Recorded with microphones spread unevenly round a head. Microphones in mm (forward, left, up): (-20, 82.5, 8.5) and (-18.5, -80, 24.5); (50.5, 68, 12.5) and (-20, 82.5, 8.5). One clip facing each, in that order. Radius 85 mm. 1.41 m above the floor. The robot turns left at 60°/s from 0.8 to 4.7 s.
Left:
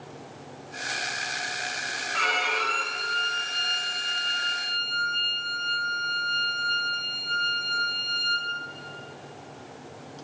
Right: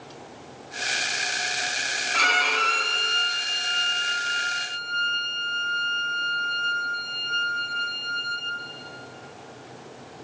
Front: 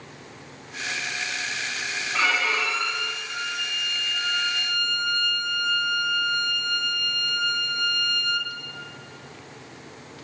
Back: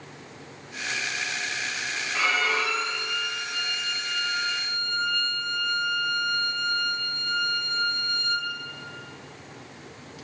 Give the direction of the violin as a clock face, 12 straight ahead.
3 o'clock.